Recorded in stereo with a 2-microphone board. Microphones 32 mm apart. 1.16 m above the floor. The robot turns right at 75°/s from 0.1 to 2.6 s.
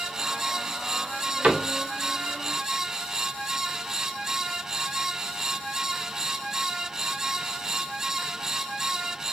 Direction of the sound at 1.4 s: 45° right (ahead or behind).